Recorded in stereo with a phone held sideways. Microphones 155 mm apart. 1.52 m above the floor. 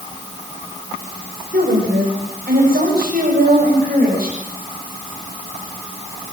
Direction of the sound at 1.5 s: 85° right.